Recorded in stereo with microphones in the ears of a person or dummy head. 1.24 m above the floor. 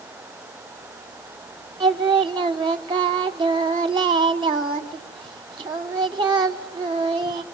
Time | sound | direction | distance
1.8 | singing | 25° right (ahead or behind) | 0.8 m